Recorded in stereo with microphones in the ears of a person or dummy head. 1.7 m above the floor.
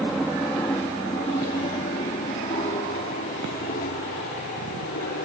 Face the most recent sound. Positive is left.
turn(degrees=50)  # may be behind; listen again after turning